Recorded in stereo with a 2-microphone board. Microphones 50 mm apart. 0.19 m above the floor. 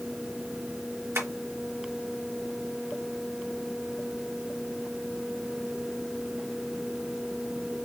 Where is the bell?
I don't hear a bell.